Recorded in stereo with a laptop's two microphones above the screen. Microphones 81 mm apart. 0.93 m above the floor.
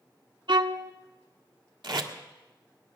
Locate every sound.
0.5 s a violin: 65° right (ahead or behind), 0.7 m
1.8 s tape being pulled: 75° right (ahead or behind), 1.7 m